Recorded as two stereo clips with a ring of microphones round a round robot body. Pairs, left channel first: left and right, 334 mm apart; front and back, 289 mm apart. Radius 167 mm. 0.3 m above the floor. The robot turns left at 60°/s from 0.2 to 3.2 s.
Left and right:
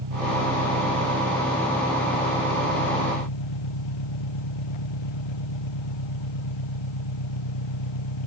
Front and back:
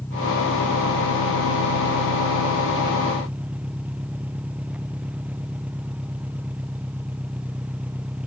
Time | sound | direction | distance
0.0 | an engine running | 85° right | ?